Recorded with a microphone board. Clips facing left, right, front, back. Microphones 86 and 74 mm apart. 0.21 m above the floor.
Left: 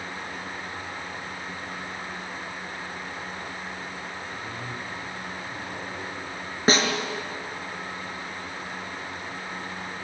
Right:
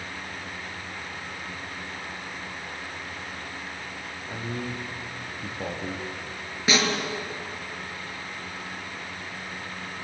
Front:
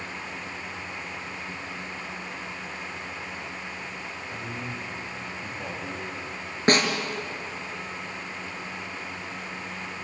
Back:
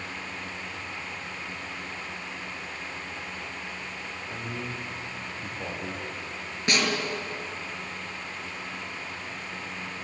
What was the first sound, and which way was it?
A man speaking, 105° right.